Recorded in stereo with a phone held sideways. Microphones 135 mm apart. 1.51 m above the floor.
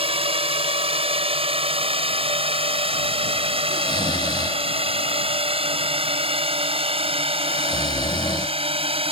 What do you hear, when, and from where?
0.0 s a drone: 45° right (ahead or behind)
3.7 s snoring: 30° left (ahead or behind)